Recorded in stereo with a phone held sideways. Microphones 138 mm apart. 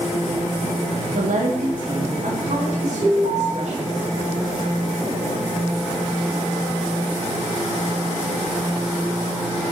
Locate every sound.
1.1 s a woman speaking: 75° right (ahead or behind), 1.9 m; by 4.0 s 55° right (ahead or behind), 5.5 m
3.0 s an alarm: 30° right (ahead or behind), 4 m